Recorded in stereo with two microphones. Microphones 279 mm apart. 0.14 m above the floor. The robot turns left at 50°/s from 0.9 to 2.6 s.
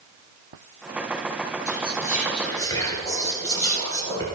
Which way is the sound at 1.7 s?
150° right.